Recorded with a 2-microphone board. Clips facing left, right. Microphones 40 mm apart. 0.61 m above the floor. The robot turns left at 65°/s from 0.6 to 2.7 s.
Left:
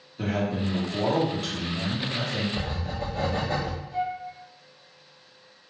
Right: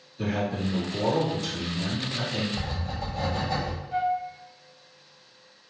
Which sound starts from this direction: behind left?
A man speaking, at 0.2 s.